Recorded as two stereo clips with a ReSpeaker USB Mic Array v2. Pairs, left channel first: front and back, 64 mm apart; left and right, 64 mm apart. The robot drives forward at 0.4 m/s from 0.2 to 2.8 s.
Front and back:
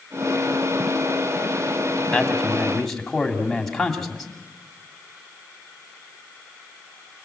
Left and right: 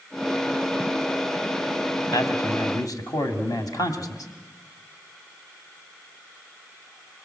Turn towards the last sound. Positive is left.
turn(degrees=85)